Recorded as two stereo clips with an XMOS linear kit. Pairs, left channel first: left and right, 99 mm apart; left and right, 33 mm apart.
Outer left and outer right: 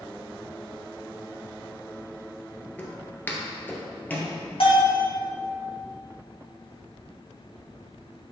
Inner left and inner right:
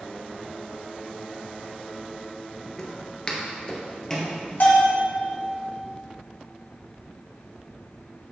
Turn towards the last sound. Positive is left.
turn(degrees=65)  # may be behind; listen again after turning